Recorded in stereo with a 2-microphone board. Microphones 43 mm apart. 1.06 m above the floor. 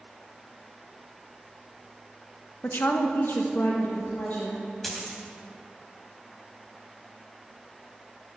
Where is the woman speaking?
50° left (ahead or behind), 1.1 m.